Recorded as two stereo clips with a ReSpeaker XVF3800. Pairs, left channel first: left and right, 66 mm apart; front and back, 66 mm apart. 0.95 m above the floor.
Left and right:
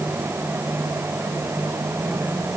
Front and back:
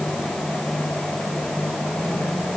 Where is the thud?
I don't hear a thud.